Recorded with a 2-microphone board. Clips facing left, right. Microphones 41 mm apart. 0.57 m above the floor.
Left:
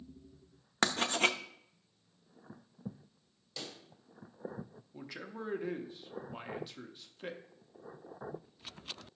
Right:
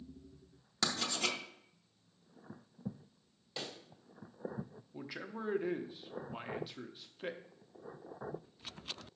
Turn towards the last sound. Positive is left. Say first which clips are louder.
# right 1 dB
turn(degrees=-5)  # may be behind; listen again after turning